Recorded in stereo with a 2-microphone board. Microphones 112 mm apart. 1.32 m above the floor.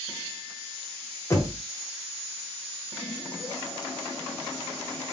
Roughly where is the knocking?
Left.